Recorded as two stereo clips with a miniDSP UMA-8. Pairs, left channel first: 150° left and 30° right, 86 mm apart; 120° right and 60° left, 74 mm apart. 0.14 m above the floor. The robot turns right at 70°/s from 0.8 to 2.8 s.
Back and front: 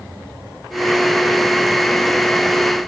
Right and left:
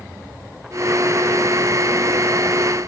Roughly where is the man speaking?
No man speaking in this recording.